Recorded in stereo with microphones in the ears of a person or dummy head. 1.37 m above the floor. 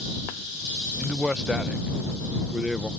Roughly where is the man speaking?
Centre.